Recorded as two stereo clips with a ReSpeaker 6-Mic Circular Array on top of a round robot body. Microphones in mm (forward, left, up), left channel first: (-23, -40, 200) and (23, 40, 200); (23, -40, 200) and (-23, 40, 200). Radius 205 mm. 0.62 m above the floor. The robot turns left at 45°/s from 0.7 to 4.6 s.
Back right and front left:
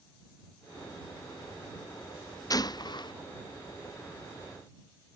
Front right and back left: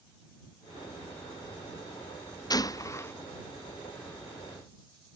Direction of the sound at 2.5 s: 90° right.